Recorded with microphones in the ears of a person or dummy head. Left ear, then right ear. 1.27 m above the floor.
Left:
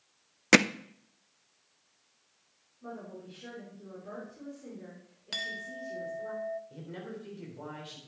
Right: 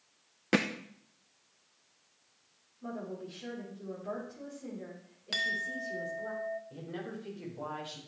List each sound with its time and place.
0.5 s hammering: 75° left (ahead or behind), 0.5 m
2.8 s a woman speaking: 10° right (ahead or behind), 4 m
5.3 s a clink: centre (ahead or behind), 0.6 m
6.7 s a man speaking: 5° right (ahead or behind), 4 m